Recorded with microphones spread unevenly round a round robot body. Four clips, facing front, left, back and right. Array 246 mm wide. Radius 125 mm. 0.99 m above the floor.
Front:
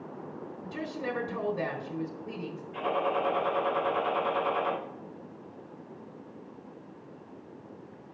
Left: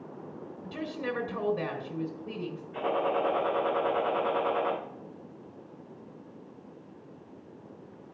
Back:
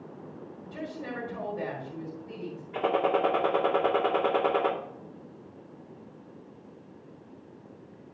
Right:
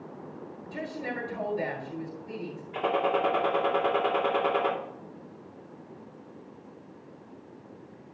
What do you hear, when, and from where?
0.6 s a woman speaking: 45° left, 4 m
2.7 s a gunshot: 165° right, 2 m